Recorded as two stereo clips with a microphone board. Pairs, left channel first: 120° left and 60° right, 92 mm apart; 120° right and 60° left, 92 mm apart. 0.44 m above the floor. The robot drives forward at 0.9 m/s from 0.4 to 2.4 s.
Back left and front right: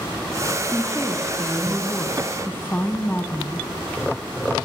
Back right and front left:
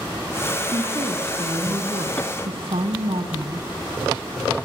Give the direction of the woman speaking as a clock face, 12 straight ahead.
11 o'clock.